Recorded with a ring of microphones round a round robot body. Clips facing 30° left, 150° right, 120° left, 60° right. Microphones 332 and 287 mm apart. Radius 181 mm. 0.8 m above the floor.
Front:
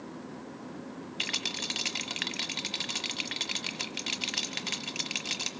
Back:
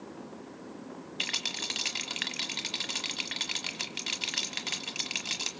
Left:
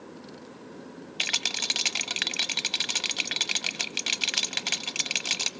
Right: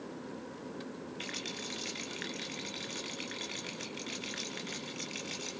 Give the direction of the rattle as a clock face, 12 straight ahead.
8 o'clock.